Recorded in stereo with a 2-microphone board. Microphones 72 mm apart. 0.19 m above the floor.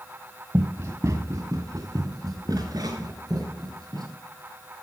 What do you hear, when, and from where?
0.5 s running footsteps: 40° right (ahead or behind), 1.2 m; by 4.1 s 65° right (ahead or behind), 5.5 m